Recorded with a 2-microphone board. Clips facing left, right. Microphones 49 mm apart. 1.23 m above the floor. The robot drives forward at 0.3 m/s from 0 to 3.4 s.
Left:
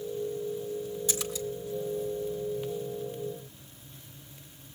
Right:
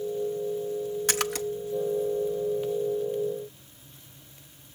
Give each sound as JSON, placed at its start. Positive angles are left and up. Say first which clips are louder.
{"t": 1.1, "sound": "a splash", "louder": "right 5 dB", "side_deg": -60, "distance_m": 0.9}